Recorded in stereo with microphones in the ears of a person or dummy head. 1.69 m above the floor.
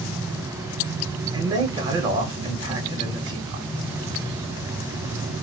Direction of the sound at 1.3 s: 20° right (ahead or behind).